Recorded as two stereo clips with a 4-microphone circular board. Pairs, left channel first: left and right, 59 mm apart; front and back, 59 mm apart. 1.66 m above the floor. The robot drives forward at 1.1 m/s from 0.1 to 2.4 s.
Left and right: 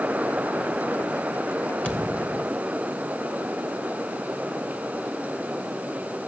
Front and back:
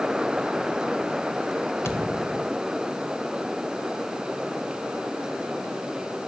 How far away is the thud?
About 2.5 m.